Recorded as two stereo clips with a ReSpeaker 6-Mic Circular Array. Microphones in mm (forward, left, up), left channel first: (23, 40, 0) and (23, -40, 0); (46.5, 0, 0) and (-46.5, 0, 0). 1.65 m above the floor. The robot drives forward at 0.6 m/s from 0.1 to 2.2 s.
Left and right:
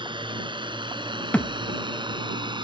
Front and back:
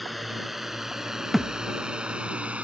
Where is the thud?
95° left; by 1.8 s 130° left.